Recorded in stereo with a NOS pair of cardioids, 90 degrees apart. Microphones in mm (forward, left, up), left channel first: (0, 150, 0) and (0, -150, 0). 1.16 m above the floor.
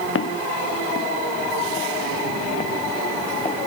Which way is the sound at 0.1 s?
45° left.